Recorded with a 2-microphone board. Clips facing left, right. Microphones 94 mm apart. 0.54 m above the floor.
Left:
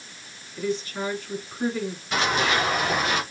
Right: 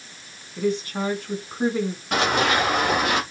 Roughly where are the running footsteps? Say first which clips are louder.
Right 3 dB; right.